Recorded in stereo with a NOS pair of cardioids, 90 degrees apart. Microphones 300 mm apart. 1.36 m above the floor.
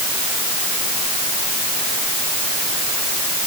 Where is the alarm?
No alarm in this recording.